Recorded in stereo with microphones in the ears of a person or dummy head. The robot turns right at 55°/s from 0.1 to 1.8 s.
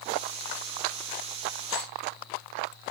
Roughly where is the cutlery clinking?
Centre.